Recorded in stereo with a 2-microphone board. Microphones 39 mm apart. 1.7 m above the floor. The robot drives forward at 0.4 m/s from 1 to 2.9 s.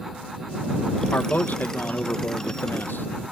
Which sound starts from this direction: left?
A man speaking, at 1.1 s.